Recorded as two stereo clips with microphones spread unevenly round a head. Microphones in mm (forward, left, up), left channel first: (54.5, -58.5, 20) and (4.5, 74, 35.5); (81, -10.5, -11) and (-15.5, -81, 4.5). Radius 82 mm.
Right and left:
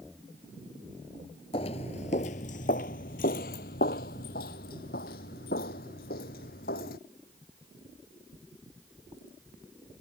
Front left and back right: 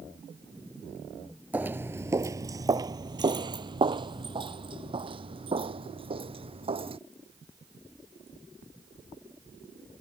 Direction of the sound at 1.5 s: 100° right.